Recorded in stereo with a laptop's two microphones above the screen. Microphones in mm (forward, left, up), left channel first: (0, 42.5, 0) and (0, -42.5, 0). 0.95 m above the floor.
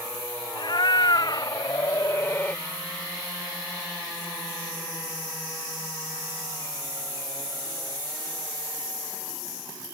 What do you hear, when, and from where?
0.6 s a cat meowing: 65° left (ahead or behind); by 2.6 s 15° left (ahead or behind)